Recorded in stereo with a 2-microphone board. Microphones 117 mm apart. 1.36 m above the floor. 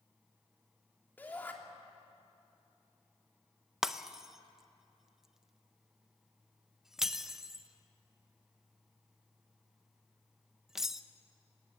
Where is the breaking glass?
5° right (ahead or behind), 0.6 m.